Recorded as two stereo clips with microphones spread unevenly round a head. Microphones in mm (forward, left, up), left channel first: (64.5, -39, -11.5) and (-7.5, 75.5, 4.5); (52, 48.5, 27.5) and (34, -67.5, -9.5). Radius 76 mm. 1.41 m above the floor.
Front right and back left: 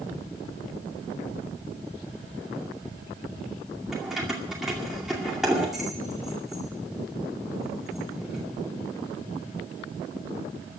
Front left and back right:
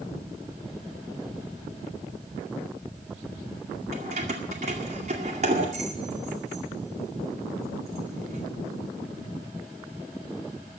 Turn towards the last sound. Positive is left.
turn(degrees=-150)